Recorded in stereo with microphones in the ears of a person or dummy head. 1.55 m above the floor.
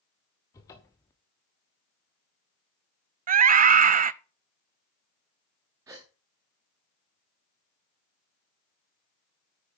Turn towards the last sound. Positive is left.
turn(degrees=-10)  # may be behind; listen again after turning